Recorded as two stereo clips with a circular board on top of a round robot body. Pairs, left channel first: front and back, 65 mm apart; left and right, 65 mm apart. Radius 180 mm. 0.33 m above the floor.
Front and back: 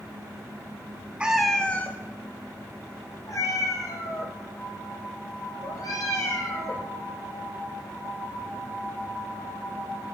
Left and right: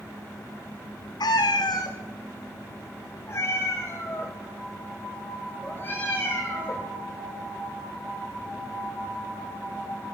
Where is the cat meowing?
105° left, 0.5 m; by 6.9 s 30° left, 4 m.